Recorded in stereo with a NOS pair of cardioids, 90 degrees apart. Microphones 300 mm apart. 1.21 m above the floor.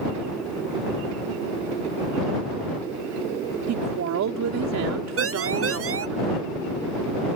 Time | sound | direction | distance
3.7 | a woman speaking | 65° right | ?
5.2 | a siren | 50° right | ?